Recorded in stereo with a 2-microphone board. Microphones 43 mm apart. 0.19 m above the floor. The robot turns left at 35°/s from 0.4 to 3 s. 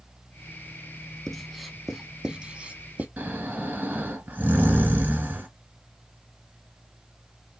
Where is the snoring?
40° right (ahead or behind), 1.7 m.